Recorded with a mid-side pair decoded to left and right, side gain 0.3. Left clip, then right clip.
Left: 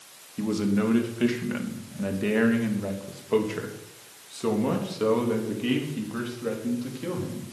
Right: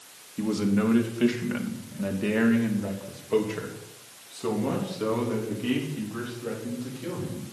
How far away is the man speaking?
About 3 m.